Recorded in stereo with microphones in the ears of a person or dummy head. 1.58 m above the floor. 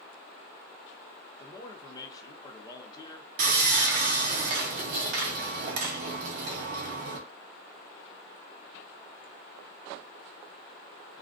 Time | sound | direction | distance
1.4 | a man speaking | 20° left (ahead or behind) | 0.7 m
3.4 | sawing | 45° right (ahead or behind) | 0.6 m